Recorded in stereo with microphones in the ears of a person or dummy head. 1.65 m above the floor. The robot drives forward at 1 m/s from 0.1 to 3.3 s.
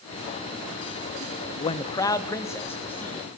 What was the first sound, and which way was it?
A man speaking, 30° left (ahead or behind).